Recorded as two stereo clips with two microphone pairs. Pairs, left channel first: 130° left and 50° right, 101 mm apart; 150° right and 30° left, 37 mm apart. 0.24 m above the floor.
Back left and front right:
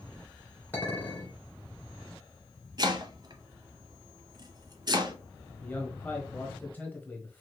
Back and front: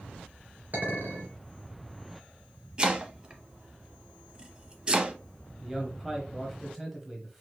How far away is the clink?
About 2.5 m.